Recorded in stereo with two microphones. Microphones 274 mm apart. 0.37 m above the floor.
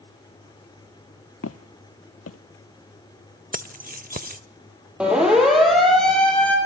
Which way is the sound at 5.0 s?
5° right (ahead or behind).